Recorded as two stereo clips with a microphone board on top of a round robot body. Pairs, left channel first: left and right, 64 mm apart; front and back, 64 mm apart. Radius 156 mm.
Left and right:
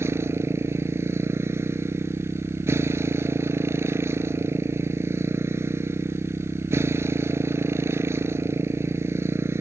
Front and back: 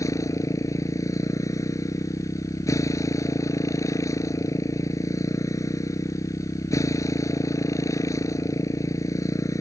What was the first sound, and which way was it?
A motorcycle, 40° right.